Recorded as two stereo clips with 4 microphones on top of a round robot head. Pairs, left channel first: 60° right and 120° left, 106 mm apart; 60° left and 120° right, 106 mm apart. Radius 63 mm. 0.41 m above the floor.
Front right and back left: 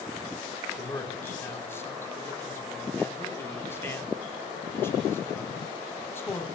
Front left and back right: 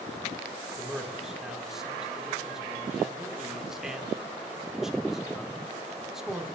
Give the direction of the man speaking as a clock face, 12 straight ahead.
1 o'clock.